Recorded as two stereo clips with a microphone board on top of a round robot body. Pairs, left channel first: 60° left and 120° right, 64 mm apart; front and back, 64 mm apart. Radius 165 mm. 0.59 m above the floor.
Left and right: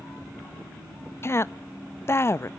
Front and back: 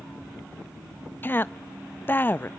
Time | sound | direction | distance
1.2 | a woman speaking | 40° left | 0.7 m